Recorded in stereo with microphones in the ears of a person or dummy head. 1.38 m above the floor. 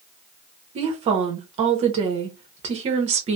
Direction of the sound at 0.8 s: 35° right (ahead or behind).